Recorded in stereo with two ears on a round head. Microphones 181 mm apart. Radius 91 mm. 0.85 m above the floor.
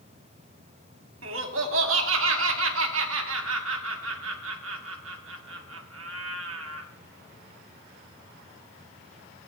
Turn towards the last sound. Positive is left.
turn(degrees=-70)  # may be behind; listen again after turning